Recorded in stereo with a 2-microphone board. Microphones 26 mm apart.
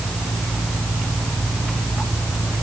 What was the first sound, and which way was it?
Only background noise.